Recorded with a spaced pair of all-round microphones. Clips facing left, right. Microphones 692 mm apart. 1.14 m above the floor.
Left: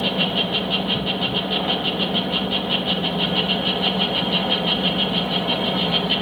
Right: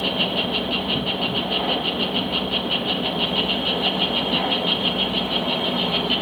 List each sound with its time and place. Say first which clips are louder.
0.0 s an insect: left 1 dB; 45° left (ahead or behind), 1.1 m